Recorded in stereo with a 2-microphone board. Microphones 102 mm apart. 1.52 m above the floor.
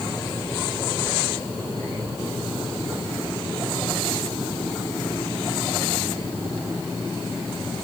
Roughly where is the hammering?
No hammering in this recording.